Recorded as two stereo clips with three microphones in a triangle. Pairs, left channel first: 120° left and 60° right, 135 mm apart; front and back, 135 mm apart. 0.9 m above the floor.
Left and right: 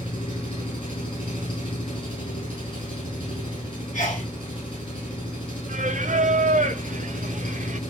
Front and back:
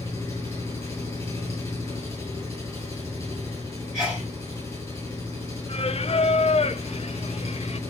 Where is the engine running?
75° left, 7 m.